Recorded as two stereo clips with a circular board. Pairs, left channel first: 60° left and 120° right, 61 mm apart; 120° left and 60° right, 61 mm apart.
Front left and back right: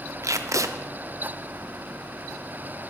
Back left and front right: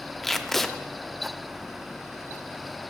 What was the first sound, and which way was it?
Tape being pulled, 155° right.